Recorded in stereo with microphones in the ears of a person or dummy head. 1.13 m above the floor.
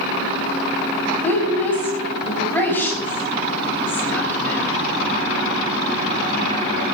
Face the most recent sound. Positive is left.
turn(degrees=15)  # may be behind; listen again after turning